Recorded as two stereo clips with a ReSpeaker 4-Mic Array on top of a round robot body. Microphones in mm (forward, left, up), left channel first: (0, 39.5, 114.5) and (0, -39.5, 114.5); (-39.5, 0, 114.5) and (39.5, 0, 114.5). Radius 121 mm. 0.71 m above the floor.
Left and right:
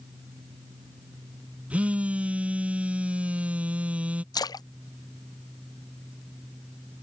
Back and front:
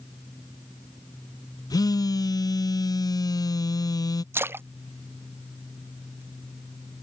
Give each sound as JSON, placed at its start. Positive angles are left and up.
{"t": 1.7, "sound": "a phone buzzing", "azimuth_deg": -160}
{"t": 4.3, "sound": "a splash", "azimuth_deg": 60}